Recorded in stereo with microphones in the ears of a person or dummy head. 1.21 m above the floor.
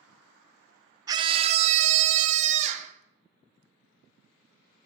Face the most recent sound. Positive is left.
turn(degrees=-45)  # may be behind; listen again after turning